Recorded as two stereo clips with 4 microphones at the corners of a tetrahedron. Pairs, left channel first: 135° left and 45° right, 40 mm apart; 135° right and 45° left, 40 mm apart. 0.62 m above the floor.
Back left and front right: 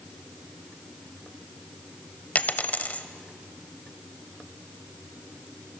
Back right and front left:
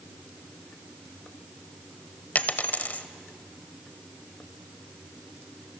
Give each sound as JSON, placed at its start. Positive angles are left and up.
{"t": 2.4, "sound": "a dropped coin", "azimuth_deg": 180, "distance_m": 0.9}